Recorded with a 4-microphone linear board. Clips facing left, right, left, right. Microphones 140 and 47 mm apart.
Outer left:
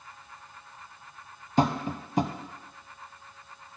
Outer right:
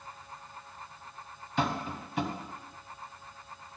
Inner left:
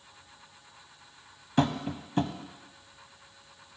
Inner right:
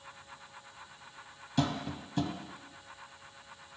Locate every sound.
1.6 s tapping: 40° left (ahead or behind), 0.6 m